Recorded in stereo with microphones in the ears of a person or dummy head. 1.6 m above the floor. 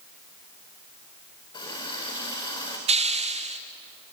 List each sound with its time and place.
1.5 s a running tap: 30° left (ahead or behind), 4.5 m
2.9 s a hiss: 30° right (ahead or behind), 0.9 m